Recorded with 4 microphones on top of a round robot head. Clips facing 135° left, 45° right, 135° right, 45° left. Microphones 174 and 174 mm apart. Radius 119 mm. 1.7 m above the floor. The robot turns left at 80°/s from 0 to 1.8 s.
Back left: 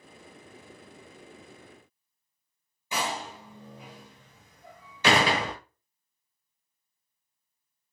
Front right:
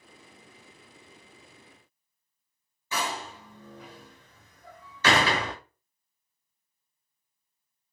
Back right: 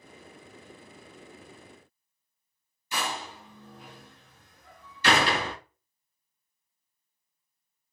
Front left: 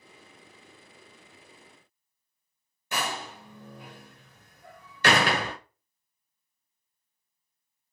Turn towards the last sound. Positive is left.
turn(degrees=65)